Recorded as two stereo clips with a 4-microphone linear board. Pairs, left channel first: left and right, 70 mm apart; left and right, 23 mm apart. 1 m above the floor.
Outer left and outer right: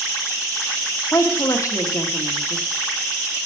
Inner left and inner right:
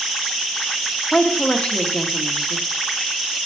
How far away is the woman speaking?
About 1.6 m.